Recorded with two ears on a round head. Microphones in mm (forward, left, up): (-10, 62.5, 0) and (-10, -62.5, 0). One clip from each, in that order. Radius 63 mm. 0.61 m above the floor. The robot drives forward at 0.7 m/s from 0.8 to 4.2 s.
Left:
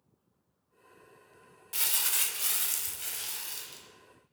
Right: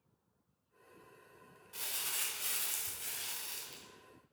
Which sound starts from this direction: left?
Crumpling, at 1.7 s.